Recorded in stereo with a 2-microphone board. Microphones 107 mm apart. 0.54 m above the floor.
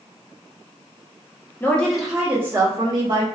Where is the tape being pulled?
No tape being pulled in this recording.